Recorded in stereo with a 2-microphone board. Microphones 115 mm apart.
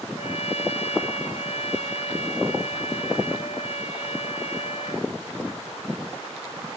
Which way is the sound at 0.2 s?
60° left (ahead or behind).